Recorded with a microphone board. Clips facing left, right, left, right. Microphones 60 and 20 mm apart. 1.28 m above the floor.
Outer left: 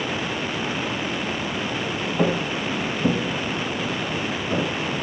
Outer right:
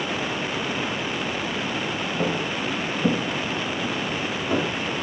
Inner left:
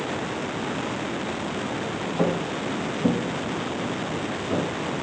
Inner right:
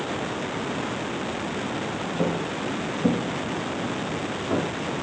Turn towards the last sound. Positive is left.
turn(degrees=-30)  # may be behind; listen again after turning